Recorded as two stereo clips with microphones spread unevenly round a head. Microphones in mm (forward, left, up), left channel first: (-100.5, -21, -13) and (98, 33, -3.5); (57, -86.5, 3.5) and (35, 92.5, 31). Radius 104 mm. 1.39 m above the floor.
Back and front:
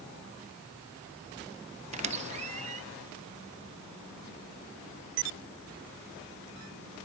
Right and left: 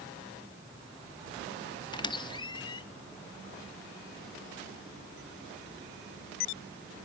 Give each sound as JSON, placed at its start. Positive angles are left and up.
{"t": 1.9, "sound": "a squeak", "azimuth_deg": -20, "distance_m": 0.8}